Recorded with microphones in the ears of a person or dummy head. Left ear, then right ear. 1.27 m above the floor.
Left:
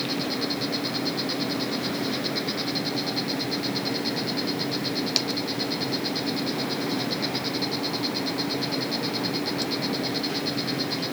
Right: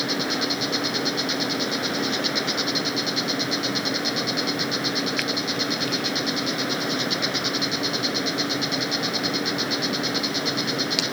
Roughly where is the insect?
Right.